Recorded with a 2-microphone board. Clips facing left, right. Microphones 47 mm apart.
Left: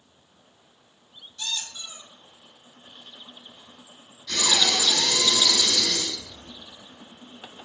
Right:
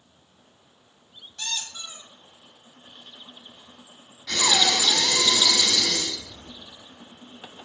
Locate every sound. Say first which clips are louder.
1.4 s a squeak: even; 55° right (ahead or behind), 1.5 m
4.3 s breathing: right 2 dB; 85° right, 1.8 m